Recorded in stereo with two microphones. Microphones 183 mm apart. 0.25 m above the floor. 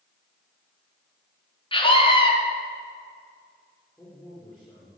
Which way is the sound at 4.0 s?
15° left (ahead or behind).